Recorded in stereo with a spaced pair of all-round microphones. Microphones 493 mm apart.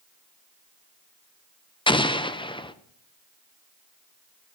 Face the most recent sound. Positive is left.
turn(degrees=10)  # may be behind; listen again after turning